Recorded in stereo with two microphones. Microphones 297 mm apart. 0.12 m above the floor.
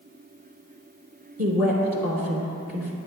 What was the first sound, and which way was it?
A woman speaking, 55° right (ahead or behind).